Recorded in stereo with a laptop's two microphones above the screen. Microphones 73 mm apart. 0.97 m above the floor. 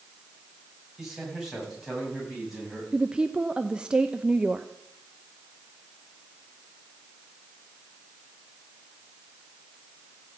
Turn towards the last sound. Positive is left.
turn(degrees=-15)  # may be behind; listen again after turning